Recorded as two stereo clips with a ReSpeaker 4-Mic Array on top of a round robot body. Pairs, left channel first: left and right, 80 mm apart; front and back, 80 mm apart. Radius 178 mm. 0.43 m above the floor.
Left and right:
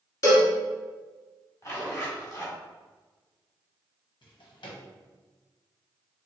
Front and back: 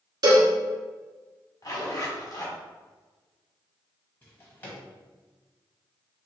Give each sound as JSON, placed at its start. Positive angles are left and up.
{"t": 0.2, "sound": "a cowbell", "azimuth_deg": 140, "distance_m": 1.1}
{"t": 1.6, "sound": "a zipper", "azimuth_deg": 45, "distance_m": 1.7}
{"t": 4.2, "sound": "a drawer", "azimuth_deg": 65, "distance_m": 1.2}